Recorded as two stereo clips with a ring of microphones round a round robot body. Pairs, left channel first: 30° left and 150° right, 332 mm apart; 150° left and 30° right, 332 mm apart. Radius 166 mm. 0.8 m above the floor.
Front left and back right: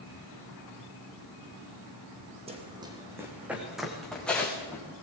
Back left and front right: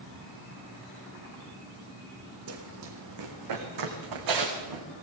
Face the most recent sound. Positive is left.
turn(degrees=-55)